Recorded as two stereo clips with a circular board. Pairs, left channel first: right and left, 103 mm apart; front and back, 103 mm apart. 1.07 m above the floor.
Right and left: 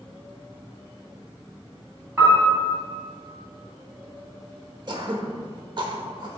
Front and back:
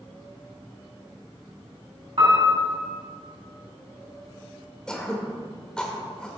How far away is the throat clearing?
About 0.9 m.